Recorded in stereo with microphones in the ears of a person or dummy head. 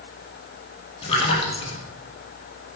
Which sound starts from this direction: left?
A splash, at 1.0 s.